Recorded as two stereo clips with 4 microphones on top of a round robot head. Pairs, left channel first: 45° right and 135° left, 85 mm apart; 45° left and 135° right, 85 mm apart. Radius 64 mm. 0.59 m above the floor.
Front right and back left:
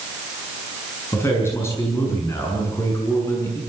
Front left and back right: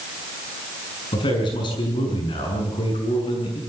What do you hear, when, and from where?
1.1 s a man speaking: 15° left, 6.5 m